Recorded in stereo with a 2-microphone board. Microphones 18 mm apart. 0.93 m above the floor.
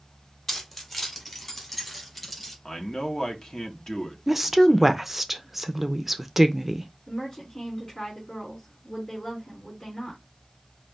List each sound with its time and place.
0.5 s keys jangling: 15° left (ahead or behind), 1.6 m; by 2.5 s 5° left (ahead or behind), 3.5 m
2.6 s a man speaking: 40° left (ahead or behind), 1.3 m
4.3 s a woman speaking: 15° right (ahead or behind), 0.5 m
7.1 s a woman speaking: 45° left (ahead or behind), 2.5 m